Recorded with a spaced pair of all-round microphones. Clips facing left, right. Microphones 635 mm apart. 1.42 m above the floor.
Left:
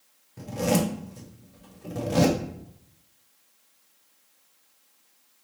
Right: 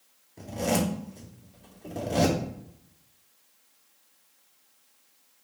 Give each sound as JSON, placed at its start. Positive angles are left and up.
{"t": 0.4, "sound": "a zipper", "side_deg": 35, "distance_m": 0.7}